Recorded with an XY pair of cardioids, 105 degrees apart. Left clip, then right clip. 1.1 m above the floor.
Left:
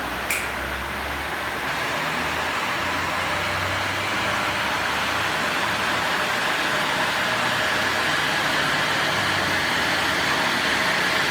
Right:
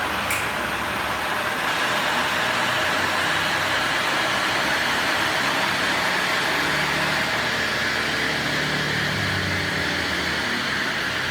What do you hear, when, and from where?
0.3 s a finger snap: 20° left, 3.5 m